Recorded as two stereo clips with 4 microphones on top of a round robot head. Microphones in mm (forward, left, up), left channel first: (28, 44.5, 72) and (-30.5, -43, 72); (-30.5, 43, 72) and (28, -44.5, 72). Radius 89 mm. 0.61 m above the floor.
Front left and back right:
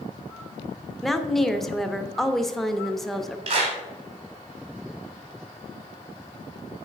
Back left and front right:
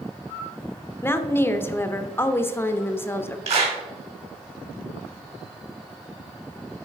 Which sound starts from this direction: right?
A clap, at 3.5 s.